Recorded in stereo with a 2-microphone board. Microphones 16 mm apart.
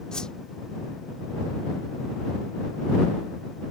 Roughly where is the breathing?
No breathing in this recording.